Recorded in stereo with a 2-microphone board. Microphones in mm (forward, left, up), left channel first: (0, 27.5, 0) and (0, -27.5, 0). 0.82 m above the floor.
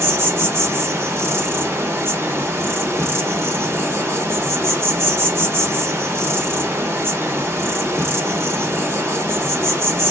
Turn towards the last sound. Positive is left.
turn(degrees=-50)  # may be behind; listen again after turning